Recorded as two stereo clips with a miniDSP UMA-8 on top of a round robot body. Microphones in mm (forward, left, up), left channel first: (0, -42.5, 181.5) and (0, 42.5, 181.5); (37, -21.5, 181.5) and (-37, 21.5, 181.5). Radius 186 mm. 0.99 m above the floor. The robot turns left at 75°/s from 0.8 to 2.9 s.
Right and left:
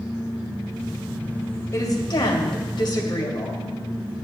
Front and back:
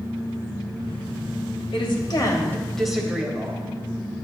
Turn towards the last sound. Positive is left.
turn(degrees=-125)